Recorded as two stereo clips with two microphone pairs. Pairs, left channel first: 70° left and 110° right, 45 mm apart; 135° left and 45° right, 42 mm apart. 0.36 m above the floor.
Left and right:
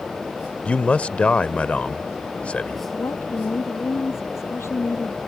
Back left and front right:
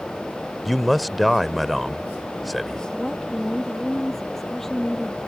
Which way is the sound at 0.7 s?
50° left.